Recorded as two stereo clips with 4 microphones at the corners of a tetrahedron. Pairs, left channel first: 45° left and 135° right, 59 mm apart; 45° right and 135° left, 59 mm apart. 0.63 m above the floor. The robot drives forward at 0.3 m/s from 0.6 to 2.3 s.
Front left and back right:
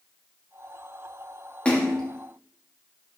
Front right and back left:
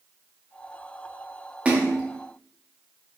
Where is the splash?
95° left, 0.8 m; by 2.0 s 110° left, 0.8 m.